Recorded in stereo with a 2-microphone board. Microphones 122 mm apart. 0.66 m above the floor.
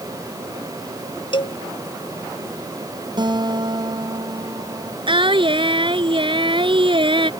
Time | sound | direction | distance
1.3 | a cowbell | 45° left (ahead or behind) | ?
3.2 | a guitar | 40° right (ahead or behind) | ?
5.1 | singing | 45° right (ahead or behind) | ?